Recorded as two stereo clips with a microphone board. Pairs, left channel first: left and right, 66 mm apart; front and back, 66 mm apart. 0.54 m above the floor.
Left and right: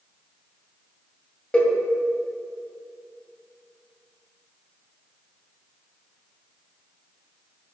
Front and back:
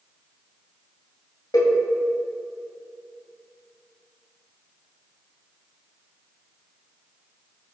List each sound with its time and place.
1.5 s a cowbell: 20° left, 2 m